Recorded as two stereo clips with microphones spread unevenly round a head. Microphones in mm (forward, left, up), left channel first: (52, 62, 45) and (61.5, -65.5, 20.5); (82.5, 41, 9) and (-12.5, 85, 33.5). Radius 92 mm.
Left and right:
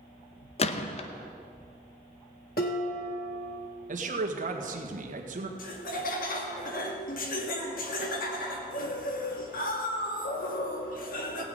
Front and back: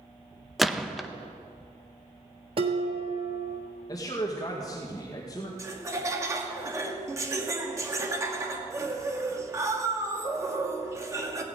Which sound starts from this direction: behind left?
Dishes clattering, at 2.6 s.